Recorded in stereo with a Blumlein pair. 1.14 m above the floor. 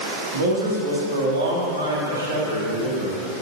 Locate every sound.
0.3 s a man speaking: 65° right, 2.5 m